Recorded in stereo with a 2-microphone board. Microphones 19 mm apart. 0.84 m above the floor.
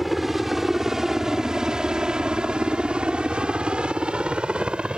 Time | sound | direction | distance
0.0 | a helicopter | 10° right (ahead or behind) | ?